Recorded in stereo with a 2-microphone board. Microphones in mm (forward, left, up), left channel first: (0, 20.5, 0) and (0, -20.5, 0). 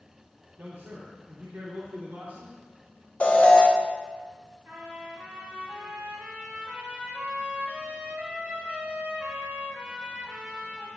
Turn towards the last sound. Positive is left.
turn(degrees=-50)  # may be behind; listen again after turning